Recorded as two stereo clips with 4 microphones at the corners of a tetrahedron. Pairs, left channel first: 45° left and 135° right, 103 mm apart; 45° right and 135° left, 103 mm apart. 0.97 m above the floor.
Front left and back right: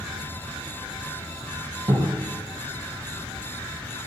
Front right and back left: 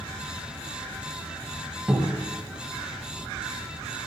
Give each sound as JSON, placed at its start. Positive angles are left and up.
{"t": 1.9, "sound": "a cupboard door", "azimuth_deg": -145, "distance_m": 0.6}